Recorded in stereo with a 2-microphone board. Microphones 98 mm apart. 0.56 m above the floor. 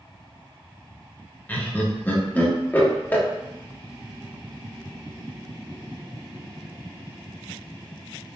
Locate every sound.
1.5 s laughter: 20° left (ahead or behind), 0.6 m